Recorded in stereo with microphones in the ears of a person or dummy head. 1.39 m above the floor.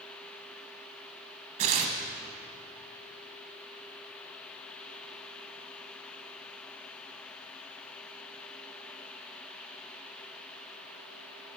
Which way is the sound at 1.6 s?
40° right (ahead or behind).